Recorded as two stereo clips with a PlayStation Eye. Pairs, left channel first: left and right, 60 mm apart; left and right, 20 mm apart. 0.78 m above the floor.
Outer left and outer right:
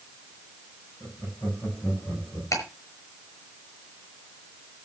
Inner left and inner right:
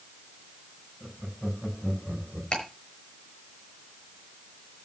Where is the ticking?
60° left (ahead or behind), 6 m.